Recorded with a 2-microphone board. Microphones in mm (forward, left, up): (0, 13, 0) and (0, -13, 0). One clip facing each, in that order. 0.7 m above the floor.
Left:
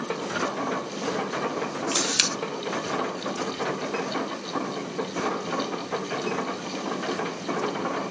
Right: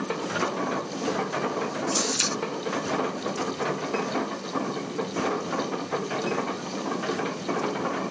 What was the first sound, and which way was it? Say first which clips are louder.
A camera shutter: left 4 dB; 80° left.